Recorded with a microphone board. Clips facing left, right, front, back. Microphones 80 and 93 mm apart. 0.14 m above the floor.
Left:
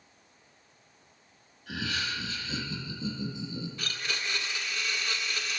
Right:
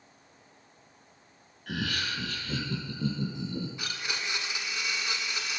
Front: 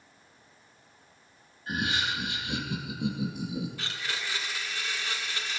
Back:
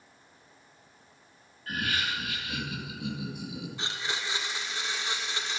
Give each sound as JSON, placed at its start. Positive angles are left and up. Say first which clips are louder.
{"t": 1.7, "sound": "laughter", "louder": "right 1 dB, front 1 dB", "azimuth_deg": -65, "distance_m": 3.0}
{"t": 3.8, "sound": "a blender", "louder": "even, back 1 dB", "azimuth_deg": -145, "distance_m": 1.4}